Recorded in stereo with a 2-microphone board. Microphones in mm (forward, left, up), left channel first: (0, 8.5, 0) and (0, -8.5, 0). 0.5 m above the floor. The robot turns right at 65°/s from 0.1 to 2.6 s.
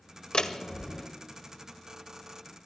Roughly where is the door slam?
Left.